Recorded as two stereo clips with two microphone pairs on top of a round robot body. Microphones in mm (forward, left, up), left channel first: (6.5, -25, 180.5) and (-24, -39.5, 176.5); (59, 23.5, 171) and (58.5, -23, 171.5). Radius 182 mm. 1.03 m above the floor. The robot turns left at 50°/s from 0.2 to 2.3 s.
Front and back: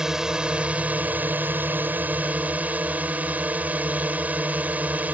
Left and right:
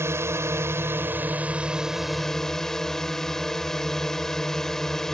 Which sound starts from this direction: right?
A drone, at 0.0 s.